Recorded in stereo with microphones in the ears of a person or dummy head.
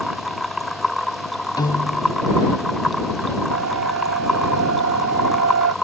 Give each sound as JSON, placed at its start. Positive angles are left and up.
{"t": 0.0, "sound": "a machine running", "side_deg": 0}
{"t": 1.6, "sound": "a piano", "side_deg": 20}
{"t": 3.5, "sound": "a siren", "side_deg": -65}